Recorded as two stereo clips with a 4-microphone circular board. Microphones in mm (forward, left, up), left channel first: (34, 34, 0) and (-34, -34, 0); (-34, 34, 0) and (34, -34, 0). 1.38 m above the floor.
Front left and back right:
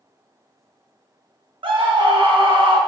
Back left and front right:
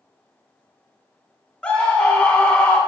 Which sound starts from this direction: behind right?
A scream, at 1.6 s.